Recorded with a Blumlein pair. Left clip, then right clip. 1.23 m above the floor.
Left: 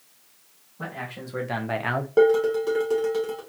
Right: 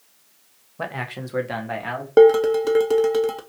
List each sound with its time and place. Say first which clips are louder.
0.8 s a man speaking: right 5 dB; 35° right, 1.0 m; by 2.1 s 25° left, 0.9 m
2.2 s dishes clattering: right 6 dB; 25° right, 0.6 m